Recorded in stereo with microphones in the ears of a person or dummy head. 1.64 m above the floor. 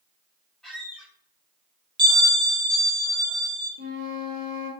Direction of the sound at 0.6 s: Centre (ahead or behind).